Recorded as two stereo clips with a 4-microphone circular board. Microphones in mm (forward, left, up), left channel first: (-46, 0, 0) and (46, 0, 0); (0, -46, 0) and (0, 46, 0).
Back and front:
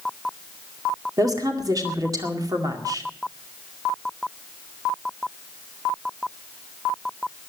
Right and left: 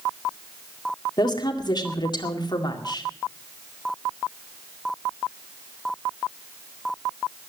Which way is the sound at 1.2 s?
50° right.